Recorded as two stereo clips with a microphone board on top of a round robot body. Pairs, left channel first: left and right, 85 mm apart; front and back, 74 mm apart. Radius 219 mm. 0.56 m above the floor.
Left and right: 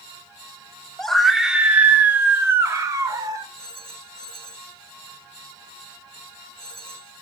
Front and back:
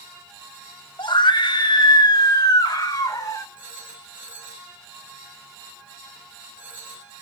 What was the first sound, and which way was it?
A scream, 5° left.